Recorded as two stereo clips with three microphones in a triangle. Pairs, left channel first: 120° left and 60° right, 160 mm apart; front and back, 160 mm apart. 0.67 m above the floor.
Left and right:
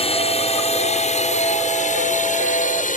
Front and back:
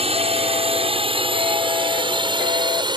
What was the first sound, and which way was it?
A drone, 150° left.